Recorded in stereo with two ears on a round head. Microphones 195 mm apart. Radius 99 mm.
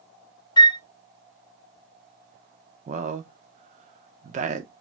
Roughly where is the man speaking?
Right.